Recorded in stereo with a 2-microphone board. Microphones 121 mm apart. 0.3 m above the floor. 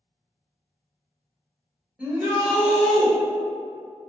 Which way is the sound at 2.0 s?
10° right (ahead or behind).